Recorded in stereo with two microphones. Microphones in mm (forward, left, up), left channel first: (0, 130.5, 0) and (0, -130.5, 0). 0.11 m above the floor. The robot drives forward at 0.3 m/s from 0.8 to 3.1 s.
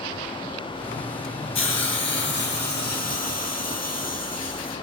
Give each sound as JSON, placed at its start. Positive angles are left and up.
{"t": 1.6, "sound": "a hiss", "side_deg": 50, "distance_m": 0.6}